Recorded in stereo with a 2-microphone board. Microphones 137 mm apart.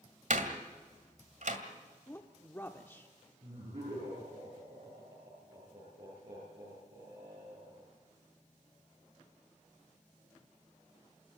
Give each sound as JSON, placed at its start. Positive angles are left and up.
{"t": 0.3, "sound": "a door slam", "side_deg": -70, "distance_m": 2.0}
{"t": 2.1, "sound": "a woman speaking", "side_deg": 15, "distance_m": 0.9}
{"t": 3.4, "sound": "laughter", "side_deg": -50, "distance_m": 9.0}